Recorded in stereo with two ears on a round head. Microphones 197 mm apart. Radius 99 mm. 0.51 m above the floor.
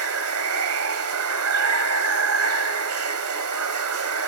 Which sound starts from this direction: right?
Running water, at 0.0 s.